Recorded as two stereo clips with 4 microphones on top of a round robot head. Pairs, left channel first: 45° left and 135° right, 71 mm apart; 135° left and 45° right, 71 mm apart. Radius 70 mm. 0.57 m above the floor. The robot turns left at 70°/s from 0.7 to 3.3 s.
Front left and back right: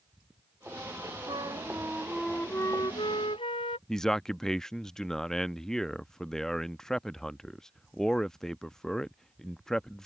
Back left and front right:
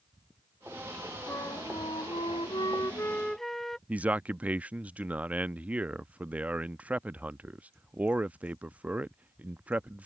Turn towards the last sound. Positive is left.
turn(degrees=-25)